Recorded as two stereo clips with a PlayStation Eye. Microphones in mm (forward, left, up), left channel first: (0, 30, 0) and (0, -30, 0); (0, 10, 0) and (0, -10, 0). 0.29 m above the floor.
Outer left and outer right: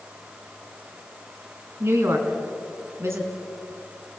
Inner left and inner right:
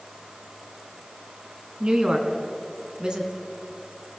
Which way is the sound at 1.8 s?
45° right (ahead or behind).